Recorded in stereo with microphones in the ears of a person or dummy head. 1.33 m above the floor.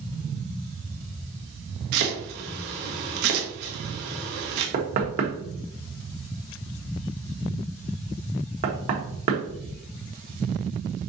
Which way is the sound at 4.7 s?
45° right (ahead or behind).